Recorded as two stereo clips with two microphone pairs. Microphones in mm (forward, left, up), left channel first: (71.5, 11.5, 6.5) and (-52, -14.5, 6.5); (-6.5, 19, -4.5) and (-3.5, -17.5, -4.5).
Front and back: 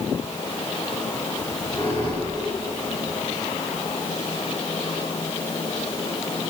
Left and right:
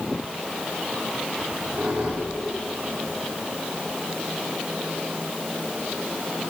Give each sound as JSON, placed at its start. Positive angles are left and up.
{"t": 1.4, "sound": "a squeak", "azimuth_deg": -50, "distance_m": 6.5}